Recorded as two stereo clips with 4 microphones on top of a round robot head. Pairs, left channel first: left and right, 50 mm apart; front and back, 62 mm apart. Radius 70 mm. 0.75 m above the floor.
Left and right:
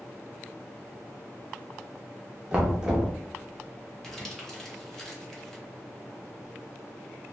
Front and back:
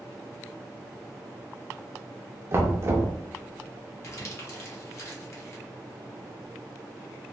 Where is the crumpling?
10° left, 1.1 m.